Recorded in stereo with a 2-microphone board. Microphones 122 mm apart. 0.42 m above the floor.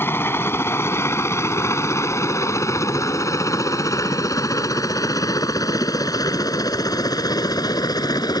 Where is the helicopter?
20° left (ahead or behind); by 8.4 s 30° left (ahead or behind).